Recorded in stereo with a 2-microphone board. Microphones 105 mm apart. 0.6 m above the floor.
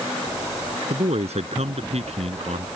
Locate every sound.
0.9 s a man speaking: 85° right